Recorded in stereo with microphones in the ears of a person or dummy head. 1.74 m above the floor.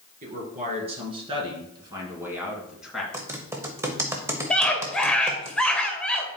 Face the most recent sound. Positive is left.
turn(degrees=5)  # may be behind; listen again after turning